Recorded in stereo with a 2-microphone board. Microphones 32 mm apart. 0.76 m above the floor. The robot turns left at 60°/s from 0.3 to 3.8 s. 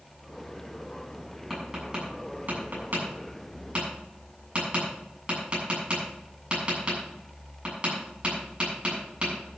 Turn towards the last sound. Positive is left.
turn(degrees=-30)  # may be behind; listen again after turning